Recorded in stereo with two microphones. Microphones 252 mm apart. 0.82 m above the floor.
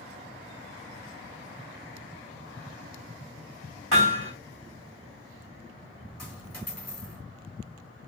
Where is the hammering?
55° right (ahead or behind), 2.5 m.